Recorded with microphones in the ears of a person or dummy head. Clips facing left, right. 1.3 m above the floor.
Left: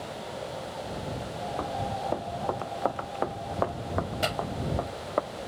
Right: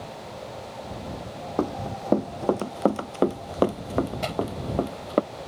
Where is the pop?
15° left (ahead or behind).